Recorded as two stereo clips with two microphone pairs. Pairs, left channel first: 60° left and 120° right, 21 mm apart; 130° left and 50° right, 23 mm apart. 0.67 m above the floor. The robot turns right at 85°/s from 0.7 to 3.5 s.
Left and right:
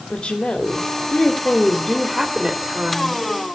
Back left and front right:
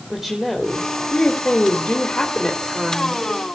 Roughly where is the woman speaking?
Ahead left.